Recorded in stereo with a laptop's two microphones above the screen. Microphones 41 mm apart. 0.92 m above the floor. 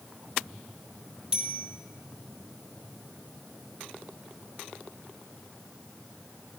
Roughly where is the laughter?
No laughter in this recording.